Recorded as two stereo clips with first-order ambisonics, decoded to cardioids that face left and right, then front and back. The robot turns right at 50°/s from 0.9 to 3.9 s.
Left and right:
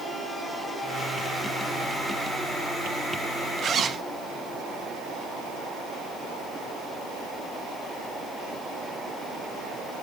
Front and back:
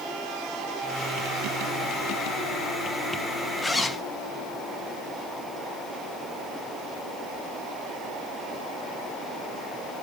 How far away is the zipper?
About 1.0 m.